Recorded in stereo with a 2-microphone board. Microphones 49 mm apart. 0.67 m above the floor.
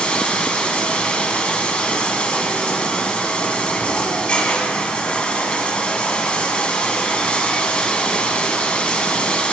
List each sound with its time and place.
0.0 s running water: 25° left (ahead or behind), 1.9 m